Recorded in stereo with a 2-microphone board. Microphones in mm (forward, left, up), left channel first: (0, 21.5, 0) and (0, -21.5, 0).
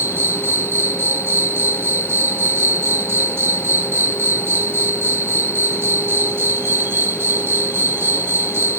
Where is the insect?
70° right (ahead or behind).